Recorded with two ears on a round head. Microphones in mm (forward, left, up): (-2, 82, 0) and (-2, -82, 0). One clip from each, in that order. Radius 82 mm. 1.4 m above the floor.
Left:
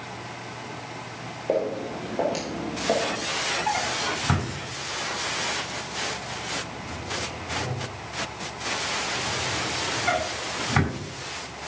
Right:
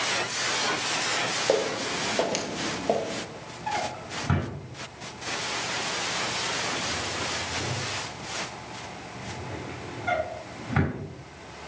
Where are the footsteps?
55° right (ahead or behind), 2.5 m; by 3.2 s 15° right (ahead or behind), 1.9 m.